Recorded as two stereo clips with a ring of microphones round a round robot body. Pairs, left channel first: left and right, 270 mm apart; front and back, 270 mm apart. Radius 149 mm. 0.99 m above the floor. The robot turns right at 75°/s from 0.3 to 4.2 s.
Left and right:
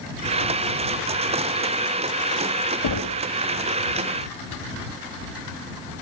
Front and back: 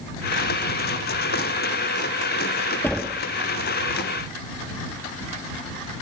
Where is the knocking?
80° left; by 3.2 s 115° left.